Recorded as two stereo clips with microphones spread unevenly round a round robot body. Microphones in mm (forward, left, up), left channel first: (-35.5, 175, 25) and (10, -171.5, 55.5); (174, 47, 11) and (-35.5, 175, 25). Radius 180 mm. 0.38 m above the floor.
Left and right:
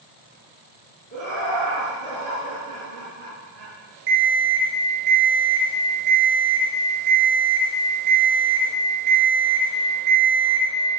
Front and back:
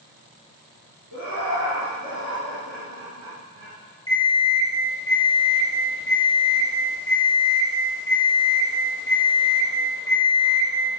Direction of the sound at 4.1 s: 110° right.